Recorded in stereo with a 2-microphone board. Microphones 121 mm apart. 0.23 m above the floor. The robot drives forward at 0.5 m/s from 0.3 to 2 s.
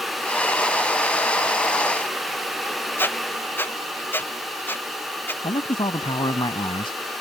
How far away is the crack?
No crack in this recording.